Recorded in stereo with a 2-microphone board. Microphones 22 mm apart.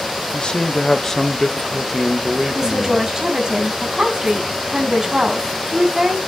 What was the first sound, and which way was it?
A man speaking, 40° left (ahead or behind).